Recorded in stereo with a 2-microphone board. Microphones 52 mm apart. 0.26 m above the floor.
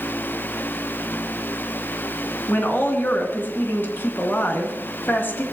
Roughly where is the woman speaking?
Left.